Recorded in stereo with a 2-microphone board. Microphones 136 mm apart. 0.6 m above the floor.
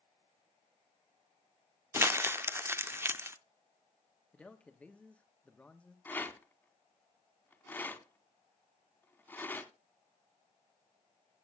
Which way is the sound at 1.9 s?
20° right (ahead or behind).